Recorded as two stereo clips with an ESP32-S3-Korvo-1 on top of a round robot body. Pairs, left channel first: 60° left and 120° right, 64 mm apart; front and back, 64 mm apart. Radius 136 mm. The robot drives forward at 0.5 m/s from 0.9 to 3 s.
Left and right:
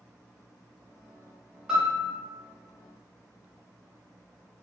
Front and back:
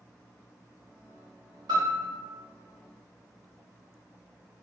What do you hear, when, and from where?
1.7 s a piano: 160° left, 0.7 m; by 2.1 s 165° left, 0.9 m